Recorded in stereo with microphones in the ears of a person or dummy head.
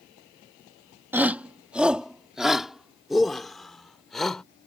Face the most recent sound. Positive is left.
turn(degrees=10)  # may be behind; listen again after turning